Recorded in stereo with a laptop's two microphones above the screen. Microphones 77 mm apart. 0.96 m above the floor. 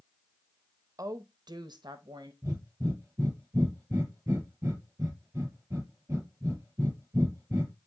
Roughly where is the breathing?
Right.